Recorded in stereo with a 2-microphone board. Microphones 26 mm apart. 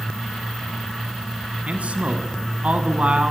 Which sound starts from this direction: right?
A man speaking, at 1.7 s.